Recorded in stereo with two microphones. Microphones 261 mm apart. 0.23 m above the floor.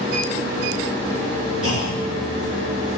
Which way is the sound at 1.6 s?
55° right (ahead or behind).